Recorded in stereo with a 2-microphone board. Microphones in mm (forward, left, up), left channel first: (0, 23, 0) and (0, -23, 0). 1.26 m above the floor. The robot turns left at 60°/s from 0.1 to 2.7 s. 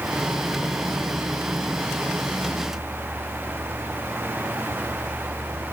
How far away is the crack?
No crack in this recording.